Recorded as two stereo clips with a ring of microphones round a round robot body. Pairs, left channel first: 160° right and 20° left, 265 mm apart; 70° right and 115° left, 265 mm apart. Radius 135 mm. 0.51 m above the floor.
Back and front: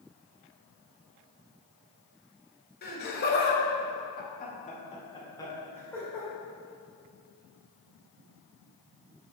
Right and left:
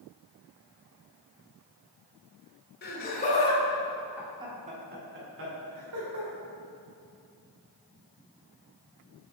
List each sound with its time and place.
2.8 s laughter: 110° right, 2 m; by 6.3 s 115° left, 2.5 m